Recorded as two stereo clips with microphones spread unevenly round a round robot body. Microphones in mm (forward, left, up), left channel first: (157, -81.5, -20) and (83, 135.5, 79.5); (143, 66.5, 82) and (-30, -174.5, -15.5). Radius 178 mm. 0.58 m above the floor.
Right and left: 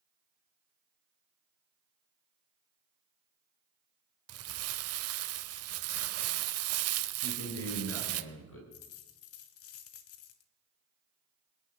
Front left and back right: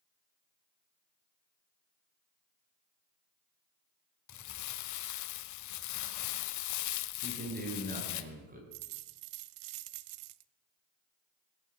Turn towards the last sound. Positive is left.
turn(degrees=-115)